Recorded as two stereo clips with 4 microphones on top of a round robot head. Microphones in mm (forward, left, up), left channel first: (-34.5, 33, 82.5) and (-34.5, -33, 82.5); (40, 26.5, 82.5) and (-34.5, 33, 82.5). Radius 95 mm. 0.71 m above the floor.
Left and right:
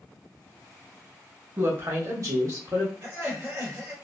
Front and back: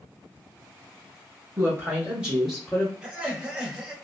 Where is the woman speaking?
140° right, 1.7 m; by 2.9 s 75° right, 1.3 m.